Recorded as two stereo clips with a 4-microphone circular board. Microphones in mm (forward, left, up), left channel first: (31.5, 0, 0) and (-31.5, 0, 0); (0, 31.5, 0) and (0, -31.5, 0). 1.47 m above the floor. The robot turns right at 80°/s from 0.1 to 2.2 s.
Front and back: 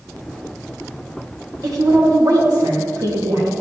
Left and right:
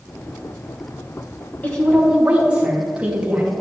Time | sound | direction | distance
1.6 | a woman speaking | 150° left | 2.5 m